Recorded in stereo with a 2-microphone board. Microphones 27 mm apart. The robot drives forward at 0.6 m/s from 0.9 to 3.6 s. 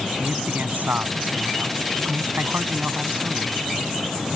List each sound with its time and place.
0.2 s a man speaking: 80° right; by 3.6 s 85° right